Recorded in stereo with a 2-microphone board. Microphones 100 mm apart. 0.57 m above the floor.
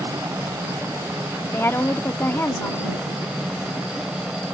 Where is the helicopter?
25° right (ahead or behind); by 4.5 s 5° right (ahead or behind).